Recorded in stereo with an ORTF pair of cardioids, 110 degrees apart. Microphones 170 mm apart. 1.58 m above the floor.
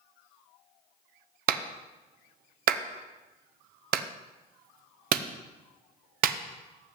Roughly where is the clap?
Ahead right.